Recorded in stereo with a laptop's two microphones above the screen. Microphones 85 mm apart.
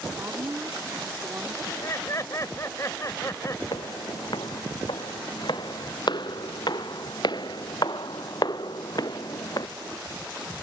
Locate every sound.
0.1 s a woman speaking: 30° right (ahead or behind)
1.6 s laughter: 35° left (ahead or behind)
3.7 s footsteps: 65° left (ahead or behind); by 9.7 s 50° left (ahead or behind)